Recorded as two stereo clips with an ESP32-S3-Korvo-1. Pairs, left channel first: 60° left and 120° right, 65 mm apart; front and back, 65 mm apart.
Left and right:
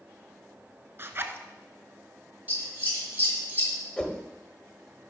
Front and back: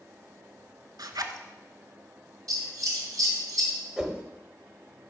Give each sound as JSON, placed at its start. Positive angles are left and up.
{"t": 1.0, "sound": "a zipper", "azimuth_deg": -175, "distance_m": 0.6}
{"t": 2.5, "sound": "scissors", "azimuth_deg": 180, "distance_m": 2.0}
{"t": 4.0, "sound": "a whoosh", "azimuth_deg": 120, "distance_m": 0.8}